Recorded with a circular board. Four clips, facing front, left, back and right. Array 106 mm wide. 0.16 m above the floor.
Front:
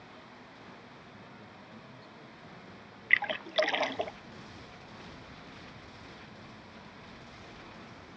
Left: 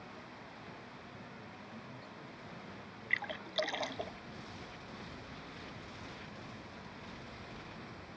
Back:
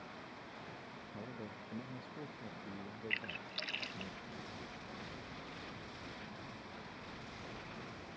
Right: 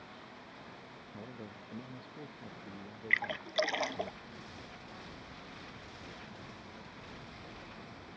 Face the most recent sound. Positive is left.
turn(degrees=-15)